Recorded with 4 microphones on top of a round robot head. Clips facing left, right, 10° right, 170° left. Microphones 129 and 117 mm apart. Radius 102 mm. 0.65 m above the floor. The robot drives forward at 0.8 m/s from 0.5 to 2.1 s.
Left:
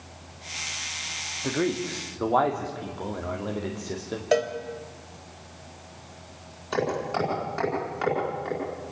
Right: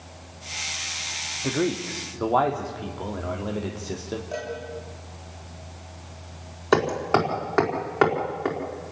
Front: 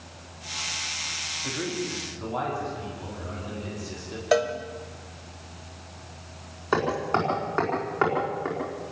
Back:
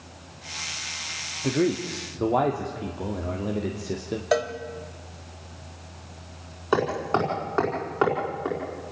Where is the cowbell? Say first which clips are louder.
Left 12 dB, front 2 dB; 80° left, 2.5 m.